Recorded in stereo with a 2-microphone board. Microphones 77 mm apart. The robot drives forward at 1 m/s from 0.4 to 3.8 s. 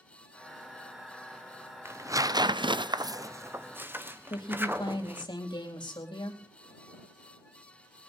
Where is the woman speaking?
70° left (ahead or behind), 4 m.